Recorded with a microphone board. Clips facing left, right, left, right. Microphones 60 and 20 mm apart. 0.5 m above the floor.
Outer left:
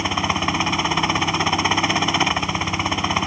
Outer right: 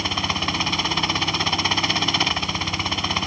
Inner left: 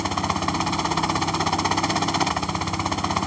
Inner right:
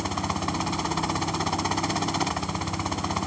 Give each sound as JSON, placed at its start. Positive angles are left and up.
{"t": 0.0, "sound": "a helicopter", "side_deg": 15}